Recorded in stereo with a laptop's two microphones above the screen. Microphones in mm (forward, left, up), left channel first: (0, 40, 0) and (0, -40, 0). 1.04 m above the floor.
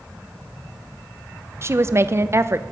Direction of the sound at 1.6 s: 35° right (ahead or behind).